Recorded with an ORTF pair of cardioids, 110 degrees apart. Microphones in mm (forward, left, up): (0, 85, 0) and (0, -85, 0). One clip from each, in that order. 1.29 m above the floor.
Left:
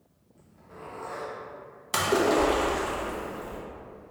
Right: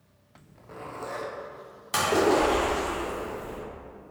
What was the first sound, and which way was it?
A zipper, 35° right.